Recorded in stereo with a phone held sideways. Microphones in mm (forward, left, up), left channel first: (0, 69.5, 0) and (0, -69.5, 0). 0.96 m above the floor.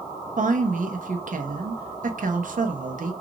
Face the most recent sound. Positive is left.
turn(degrees=-70)  # may be behind; listen again after turning